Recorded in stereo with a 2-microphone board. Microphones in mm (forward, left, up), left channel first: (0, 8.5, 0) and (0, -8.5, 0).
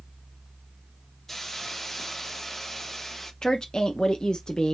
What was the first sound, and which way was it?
A hiss, 10° left (ahead or behind).